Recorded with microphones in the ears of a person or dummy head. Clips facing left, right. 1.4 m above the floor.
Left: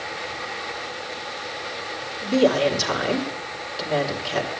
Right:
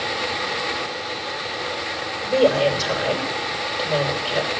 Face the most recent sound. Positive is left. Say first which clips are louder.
# right 1 dB
turn(degrees=85)